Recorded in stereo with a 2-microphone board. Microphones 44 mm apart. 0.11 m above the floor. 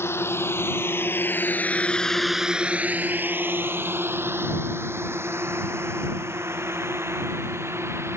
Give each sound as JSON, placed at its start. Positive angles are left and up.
{"t": 0.0, "sound": "a drone", "side_deg": 65}